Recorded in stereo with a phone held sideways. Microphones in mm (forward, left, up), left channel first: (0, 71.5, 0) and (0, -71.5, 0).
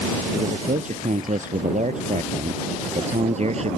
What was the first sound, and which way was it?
A man speaking, 65° right (ahead or behind).